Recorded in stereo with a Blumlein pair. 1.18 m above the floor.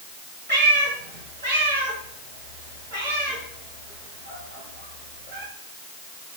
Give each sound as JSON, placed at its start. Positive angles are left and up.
{"t": 0.5, "sound": "a cat meowing", "azimuth_deg": -70, "distance_m": 3.0}